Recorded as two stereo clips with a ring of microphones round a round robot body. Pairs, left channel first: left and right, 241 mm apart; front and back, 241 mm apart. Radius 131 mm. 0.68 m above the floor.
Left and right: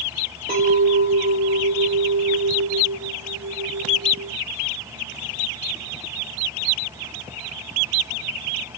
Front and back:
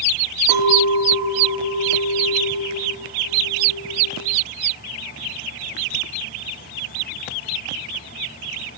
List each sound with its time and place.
0.5 s a clink: 150° right, 1.1 m